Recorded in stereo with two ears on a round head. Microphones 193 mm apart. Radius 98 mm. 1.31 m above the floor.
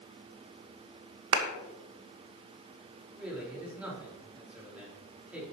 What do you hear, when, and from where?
1.3 s a clap: 65° right (ahead or behind), 1.4 m
3.1 s a man speaking: 5° right (ahead or behind), 4.5 m